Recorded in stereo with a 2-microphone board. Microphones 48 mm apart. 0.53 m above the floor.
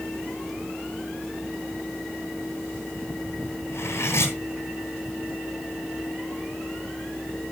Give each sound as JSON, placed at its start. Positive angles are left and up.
{"t": 3.7, "sound": "cutlery clinking", "side_deg": 70, "distance_m": 2.5}